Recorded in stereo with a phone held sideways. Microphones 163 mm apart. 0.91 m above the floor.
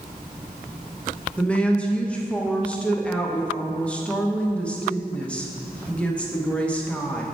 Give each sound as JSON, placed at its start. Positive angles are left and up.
{"t": 1.4, "sound": "a woman speaking", "side_deg": 5, "distance_m": 0.9}